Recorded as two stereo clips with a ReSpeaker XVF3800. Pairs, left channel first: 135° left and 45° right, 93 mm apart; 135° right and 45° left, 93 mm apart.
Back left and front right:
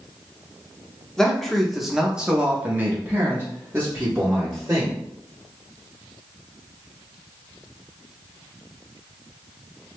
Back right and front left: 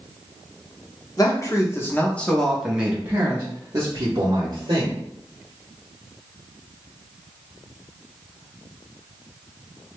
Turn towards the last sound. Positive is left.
turn(degrees=15)